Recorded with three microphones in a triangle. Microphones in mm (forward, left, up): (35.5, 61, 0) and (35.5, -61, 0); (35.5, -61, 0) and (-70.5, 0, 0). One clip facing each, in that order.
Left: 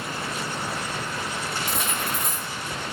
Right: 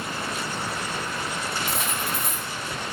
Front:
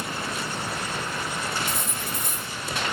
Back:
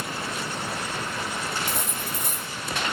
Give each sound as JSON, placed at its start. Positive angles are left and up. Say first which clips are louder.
{"t": 1.7, "sound": "cutlery clinking", "louder": "even, even", "azimuth_deg": 180, "distance_m": 3.0}